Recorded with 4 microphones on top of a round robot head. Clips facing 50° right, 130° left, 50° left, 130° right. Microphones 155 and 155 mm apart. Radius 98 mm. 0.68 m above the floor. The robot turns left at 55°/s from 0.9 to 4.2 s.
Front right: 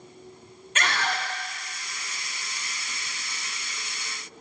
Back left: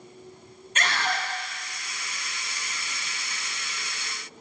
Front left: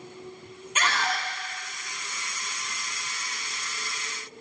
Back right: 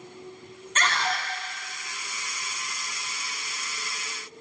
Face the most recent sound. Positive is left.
turn(degrees=150)